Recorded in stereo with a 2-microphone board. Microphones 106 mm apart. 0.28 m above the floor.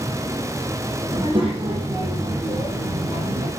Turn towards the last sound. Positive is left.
turn(degrees=-70)  # may be behind; listen again after turning